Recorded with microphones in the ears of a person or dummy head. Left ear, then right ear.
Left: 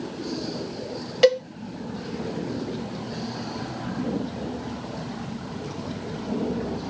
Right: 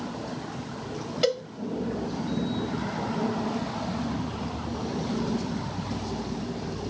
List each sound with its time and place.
1.2 s a cowbell: 35° left (ahead or behind), 1.3 m